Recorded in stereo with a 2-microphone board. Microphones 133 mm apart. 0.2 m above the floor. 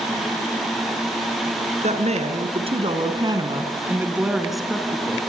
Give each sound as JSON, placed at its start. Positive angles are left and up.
{"t": 1.8, "sound": "a woman speaking", "side_deg": -60, "distance_m": 3.5}